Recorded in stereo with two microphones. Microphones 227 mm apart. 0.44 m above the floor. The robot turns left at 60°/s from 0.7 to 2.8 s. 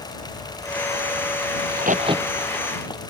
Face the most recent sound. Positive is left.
turn(degrees=20)  # may be behind; listen again after turning